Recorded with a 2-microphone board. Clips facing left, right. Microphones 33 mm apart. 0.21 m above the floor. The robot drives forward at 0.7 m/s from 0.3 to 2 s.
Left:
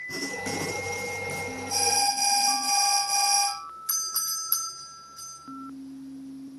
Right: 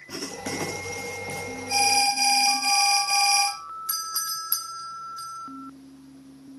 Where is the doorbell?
40° right (ahead or behind), 5 m.